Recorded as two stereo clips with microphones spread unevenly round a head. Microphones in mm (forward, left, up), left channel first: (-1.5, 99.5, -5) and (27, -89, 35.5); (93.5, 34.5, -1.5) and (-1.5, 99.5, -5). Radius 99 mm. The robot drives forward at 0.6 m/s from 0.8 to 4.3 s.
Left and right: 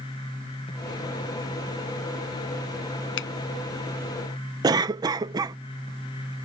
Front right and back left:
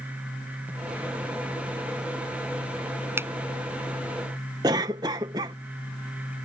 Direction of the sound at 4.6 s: 155° right.